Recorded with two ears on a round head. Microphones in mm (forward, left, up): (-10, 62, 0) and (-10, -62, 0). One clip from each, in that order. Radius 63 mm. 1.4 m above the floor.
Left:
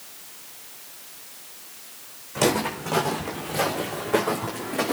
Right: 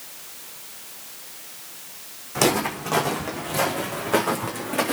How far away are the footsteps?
About 5.5 m.